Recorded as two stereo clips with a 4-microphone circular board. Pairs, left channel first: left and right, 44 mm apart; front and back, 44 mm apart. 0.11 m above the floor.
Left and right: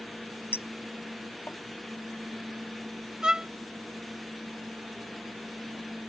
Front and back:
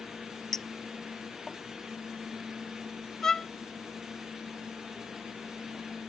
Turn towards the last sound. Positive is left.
turn(degrees=-55)